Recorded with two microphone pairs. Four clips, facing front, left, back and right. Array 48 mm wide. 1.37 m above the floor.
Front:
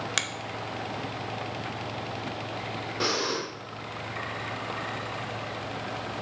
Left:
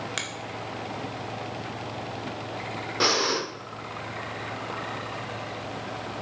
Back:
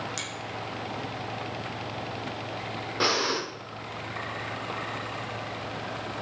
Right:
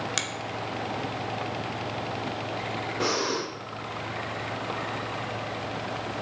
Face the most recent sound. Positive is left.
turn(degrees=125)